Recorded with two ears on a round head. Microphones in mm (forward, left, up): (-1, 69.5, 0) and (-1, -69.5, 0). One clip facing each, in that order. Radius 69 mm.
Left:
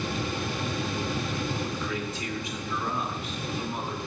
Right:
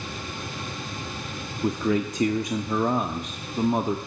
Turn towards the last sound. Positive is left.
turn(degrees=-40)  # may be behind; listen again after turning